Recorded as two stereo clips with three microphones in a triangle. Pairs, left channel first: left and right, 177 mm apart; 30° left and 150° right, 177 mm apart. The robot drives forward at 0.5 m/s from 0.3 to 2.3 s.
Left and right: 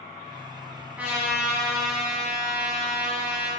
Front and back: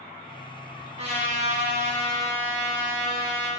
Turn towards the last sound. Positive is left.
turn(degrees=-175)